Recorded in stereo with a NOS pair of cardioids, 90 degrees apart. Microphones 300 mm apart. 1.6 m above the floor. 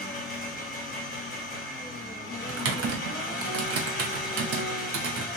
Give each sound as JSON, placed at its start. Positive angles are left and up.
{"t": 0.0, "sound": "an engine running", "azimuth_deg": 30, "distance_m": 1.1}
{"t": 2.5, "sound": "typing on a keyboard", "azimuth_deg": -55, "distance_m": 0.9}